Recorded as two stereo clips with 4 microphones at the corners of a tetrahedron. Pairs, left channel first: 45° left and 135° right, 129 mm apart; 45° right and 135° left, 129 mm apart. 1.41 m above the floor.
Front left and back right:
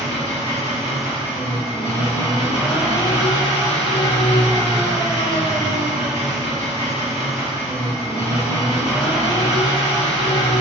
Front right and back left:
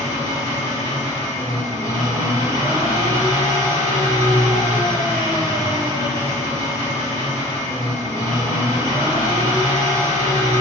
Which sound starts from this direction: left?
An engine running, at 0.0 s.